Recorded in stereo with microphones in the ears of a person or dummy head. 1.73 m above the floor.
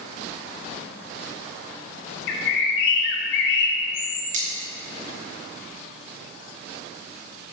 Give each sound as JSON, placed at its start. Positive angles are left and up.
{"t": 2.3, "sound": "a bird", "side_deg": 70, "distance_m": 1.3}
{"t": 4.3, "sound": "cutlery clinking", "side_deg": -40, "distance_m": 1.6}